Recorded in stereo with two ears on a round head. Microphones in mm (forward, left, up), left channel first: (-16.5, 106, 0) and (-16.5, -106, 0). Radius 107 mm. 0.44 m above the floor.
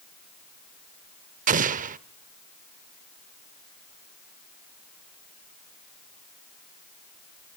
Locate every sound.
1.5 s an explosion: 35° right (ahead or behind), 0.6 m